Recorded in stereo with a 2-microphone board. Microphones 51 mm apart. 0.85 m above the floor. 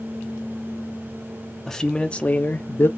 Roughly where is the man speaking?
Centre.